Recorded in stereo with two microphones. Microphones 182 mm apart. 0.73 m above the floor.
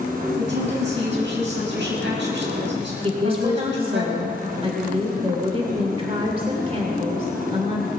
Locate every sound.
0.4 s a woman speaking: 80° right, 5.5 m
3.0 s a woman speaking: 30° right (ahead or behind), 1.8 m